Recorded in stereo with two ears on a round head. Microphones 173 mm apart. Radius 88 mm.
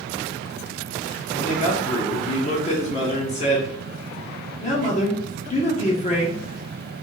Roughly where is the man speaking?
Left.